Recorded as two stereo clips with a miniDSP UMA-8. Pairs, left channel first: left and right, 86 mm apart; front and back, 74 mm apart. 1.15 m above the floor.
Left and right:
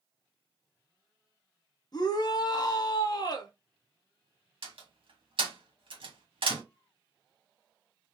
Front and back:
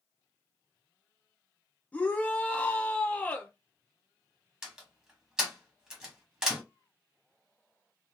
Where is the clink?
No clink in this recording.